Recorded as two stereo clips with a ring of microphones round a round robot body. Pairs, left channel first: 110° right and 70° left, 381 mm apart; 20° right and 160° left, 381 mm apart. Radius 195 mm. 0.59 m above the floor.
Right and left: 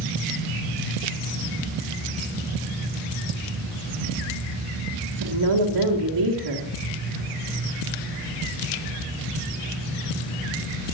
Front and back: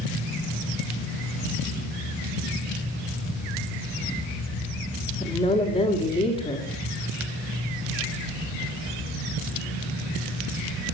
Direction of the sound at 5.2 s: 55° left.